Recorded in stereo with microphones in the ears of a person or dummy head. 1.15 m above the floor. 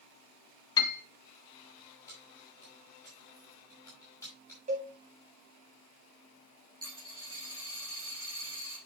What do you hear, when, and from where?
0.8 s a piano: 20° left (ahead or behind), 1.1 m
2.1 s keys jangling: 20° left (ahead or behind), 5 m
4.7 s a cowbell: 40° right (ahead or behind), 2 m
6.8 s a dropped coin: 20° right (ahead or behind), 2 m